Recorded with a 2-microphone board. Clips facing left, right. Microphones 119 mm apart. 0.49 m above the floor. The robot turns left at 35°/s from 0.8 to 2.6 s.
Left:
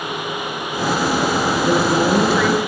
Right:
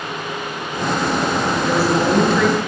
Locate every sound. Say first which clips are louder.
1.6 s a woman speaking: left 1 dB; 25° left, 8 m; by 2.6 s 5° right, 8 m